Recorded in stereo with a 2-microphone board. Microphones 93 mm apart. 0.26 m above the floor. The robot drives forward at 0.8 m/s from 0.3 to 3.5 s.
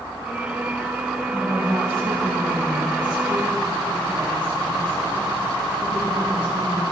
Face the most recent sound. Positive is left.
turn(degrees=-55)  # may be behind; listen again after turning